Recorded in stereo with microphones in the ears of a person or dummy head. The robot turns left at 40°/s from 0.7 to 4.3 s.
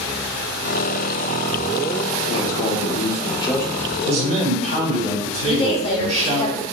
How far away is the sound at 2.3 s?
About 0.8 m.